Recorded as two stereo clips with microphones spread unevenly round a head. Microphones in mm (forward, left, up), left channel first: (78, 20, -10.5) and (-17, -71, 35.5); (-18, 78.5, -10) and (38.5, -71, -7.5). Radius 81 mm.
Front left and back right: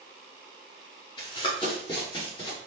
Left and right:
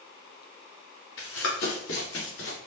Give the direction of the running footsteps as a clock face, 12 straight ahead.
8 o'clock.